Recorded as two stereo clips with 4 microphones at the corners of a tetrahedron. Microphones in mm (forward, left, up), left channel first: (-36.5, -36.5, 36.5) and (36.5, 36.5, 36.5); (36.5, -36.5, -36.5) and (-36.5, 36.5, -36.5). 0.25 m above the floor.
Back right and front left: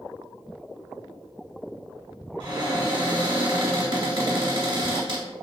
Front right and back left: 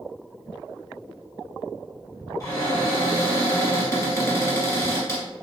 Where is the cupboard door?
10° left, 1.5 m.